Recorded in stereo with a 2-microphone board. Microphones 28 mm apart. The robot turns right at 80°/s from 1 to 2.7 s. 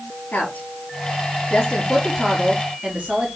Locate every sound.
0.3 s a woman speaking: 80° left, 6 m; by 3.3 s 40° right (ahead or behind), 6 m